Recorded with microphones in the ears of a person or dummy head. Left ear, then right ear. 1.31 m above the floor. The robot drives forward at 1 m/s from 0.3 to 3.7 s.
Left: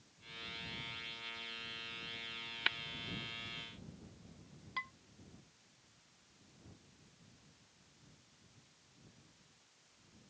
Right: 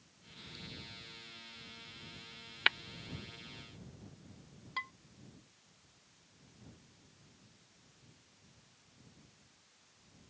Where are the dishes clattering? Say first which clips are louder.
Right 2 dB; 5° right (ahead or behind).